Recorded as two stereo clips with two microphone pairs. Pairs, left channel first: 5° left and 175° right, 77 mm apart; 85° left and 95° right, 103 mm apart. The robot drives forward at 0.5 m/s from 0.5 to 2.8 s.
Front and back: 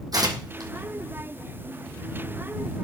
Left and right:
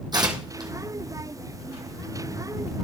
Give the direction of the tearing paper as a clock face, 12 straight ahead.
5 o'clock.